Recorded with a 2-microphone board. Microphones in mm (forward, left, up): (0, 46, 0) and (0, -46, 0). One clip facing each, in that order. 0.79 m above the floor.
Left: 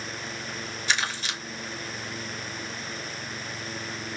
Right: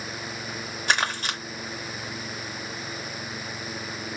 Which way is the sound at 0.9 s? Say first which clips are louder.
Right 4 dB; 50° right (ahead or behind).